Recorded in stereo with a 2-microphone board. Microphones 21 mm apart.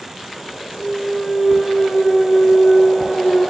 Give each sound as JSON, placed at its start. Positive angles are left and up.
{"t": 0.8, "sound": "a clunk", "side_deg": 35, "distance_m": 4.0}